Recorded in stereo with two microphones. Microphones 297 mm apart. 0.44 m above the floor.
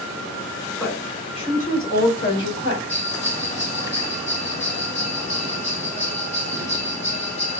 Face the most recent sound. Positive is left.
turn(degrees=40)  # may be behind; listen again after turning